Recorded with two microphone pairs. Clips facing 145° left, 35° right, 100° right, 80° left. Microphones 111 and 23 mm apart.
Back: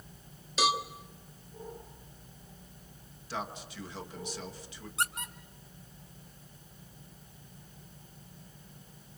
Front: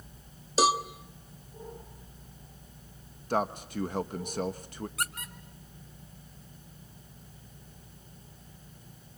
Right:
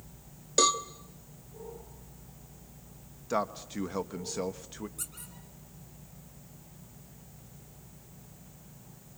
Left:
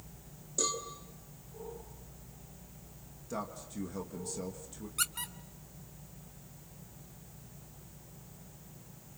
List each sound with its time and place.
0.6 s a cowbell: 85° right, 1.2 m
3.3 s a man speaking: 65° right, 1.0 m
5.0 s a squeak: 85° left, 1.7 m